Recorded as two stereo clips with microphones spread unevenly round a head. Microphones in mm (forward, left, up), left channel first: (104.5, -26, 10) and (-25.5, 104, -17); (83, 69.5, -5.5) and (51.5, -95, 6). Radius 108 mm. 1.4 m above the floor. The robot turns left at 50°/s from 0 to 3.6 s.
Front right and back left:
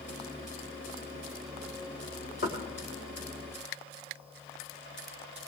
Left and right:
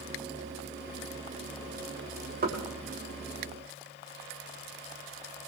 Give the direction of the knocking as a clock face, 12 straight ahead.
3 o'clock.